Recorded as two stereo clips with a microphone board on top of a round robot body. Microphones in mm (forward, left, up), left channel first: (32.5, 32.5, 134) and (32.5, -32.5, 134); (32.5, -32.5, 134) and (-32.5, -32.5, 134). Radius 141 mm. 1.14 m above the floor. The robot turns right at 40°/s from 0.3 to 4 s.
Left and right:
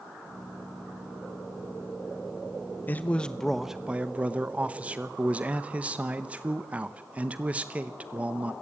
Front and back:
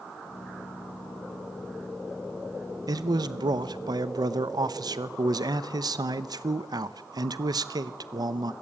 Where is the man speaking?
155° left, 0.9 m; by 8.5 s 160° right, 0.9 m.